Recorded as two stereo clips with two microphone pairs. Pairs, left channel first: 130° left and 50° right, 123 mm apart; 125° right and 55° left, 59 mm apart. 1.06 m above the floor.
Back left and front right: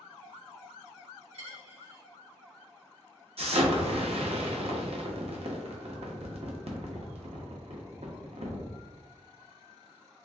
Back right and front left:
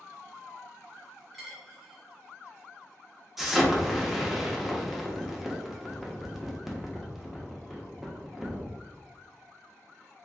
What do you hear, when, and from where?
1.3 s a dropped coin: 35° right, 1.5 m
3.4 s an explosion: 30° right, 0.8 m